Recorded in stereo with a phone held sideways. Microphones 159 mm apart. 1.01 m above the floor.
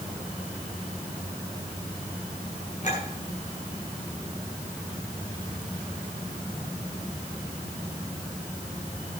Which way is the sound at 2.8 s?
50° left (ahead or behind).